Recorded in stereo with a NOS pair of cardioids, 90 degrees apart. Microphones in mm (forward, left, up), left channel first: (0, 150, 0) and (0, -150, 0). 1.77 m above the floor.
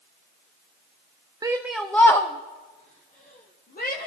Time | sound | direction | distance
1.4 | a shout | 15° right | 0.7 m